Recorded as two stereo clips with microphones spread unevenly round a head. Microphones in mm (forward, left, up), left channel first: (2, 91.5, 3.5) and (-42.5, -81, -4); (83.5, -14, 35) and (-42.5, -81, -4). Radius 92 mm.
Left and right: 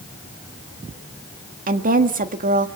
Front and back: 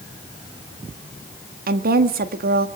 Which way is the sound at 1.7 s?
150° right.